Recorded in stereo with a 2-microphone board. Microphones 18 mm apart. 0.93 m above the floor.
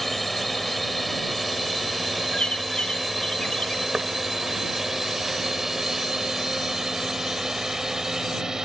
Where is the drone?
10° left (ahead or behind); by 8.7 s 35° right (ahead or behind).